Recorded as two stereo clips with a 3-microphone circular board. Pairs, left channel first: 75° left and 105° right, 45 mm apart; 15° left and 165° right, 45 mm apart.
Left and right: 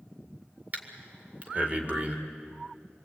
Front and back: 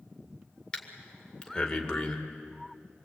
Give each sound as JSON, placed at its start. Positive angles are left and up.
{"t": 0.7, "sound": "breathing", "azimuth_deg": -55, "distance_m": 2.0}